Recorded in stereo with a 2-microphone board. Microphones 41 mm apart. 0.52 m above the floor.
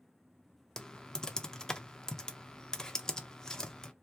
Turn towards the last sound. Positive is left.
turn(degrees=20)  # may be behind; listen again after turning